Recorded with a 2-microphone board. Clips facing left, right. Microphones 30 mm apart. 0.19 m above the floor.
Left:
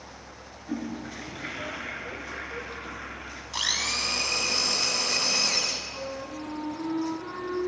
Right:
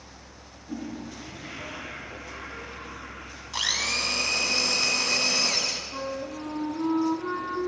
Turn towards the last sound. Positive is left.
turn(degrees=-45)  # may be behind; listen again after turning